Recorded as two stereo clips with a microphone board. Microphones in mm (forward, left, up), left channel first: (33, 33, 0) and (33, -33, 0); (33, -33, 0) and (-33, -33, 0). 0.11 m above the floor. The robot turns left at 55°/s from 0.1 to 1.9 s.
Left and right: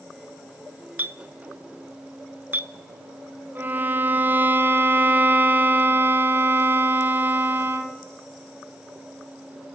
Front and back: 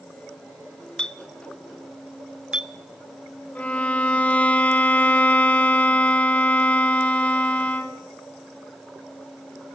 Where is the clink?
65° right, 0.8 m; by 2.7 s 115° right, 0.8 m.